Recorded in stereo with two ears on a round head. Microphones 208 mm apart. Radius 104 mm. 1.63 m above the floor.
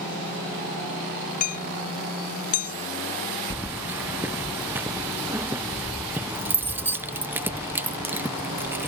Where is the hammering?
35° left (ahead or behind).